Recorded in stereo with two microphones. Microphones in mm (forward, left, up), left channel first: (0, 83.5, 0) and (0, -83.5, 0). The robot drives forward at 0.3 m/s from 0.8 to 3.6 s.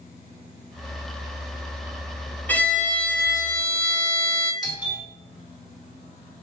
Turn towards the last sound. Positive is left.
turn(degrees=25)  # may be behind; listen again after turning